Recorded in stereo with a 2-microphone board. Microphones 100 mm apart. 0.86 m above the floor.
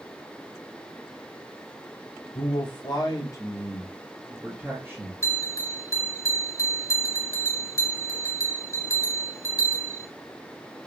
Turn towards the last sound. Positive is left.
turn(degrees=30)  # may be behind; listen again after turning